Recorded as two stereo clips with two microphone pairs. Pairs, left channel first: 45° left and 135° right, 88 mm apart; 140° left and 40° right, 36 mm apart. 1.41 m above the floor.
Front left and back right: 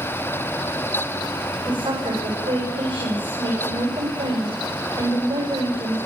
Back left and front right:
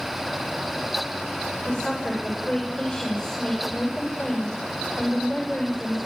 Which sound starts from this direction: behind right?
A woman speaking, at 1.6 s.